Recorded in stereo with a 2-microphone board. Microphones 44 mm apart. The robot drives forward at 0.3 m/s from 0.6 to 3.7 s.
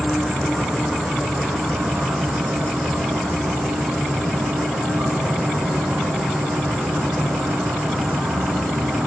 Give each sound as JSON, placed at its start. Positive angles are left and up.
{"t": 0.0, "sound": "an insect", "side_deg": -50, "distance_m": 1.8}